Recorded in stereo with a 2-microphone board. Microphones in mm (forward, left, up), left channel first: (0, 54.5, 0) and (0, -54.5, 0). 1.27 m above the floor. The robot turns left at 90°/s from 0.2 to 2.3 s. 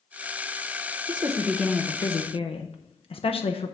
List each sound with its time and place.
1.1 s a woman speaking: 130° right, 0.7 m; by 3.8 s 120° left, 0.7 m